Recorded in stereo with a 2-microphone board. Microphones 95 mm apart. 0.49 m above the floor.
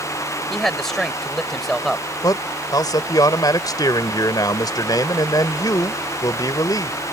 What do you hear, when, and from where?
0.5 s a man speaking: 5° left (ahead or behind)
2.2 s a man speaking: 45° left (ahead or behind)